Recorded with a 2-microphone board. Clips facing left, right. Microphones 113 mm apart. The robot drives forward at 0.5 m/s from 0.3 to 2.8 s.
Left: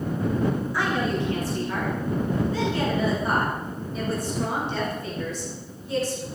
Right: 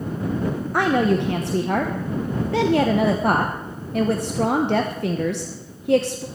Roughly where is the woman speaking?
Right.